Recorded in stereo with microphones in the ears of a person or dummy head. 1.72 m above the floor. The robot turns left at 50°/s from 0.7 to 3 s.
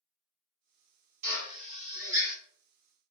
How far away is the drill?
About 0.8 m.